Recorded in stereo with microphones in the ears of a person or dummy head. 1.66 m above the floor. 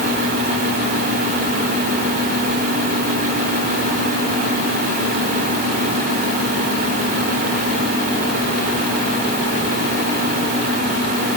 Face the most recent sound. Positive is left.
No sound to turn to.